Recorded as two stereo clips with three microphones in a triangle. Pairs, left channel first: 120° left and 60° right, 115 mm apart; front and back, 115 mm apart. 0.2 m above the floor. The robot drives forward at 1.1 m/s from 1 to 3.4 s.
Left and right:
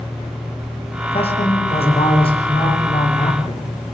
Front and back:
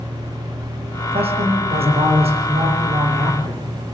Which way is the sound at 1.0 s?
150° left.